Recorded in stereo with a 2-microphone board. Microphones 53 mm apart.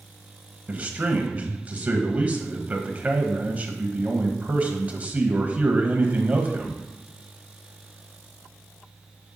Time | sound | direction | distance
0.7 | a man speaking | 30° right (ahead or behind) | 1.1 m